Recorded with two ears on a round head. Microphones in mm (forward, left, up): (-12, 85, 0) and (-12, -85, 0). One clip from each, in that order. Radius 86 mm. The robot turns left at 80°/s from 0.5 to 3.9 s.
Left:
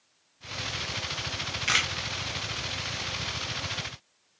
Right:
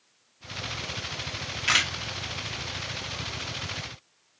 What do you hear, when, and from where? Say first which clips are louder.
1.7 s a camera shutter: right 2 dB; 5° left (ahead or behind), 0.7 m; by 1.9 s 5° right (ahead or behind), 0.7 m